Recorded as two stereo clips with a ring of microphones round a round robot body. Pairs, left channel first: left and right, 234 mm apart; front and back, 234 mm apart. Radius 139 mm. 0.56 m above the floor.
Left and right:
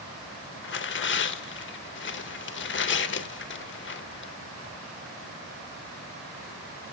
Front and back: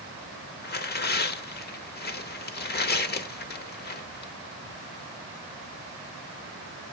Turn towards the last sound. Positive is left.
turn(degrees=50)